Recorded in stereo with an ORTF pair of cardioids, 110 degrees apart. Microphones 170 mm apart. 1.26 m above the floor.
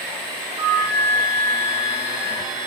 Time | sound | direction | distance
0.6 | a flute | 15° right | 5.5 m